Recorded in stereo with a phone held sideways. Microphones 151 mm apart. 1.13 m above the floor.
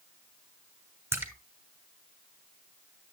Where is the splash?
15° right (ahead or behind), 2.5 m.